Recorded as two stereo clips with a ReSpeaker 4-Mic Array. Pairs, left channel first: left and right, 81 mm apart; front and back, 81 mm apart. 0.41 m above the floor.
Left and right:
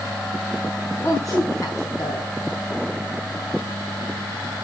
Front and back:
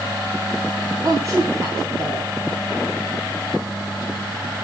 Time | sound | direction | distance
1.0 | a woman speaking | 130° left | 4 m